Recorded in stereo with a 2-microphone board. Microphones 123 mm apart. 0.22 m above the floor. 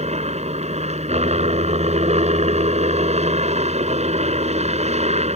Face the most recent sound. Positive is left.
turn(degrees=-60)  # may be behind; listen again after turning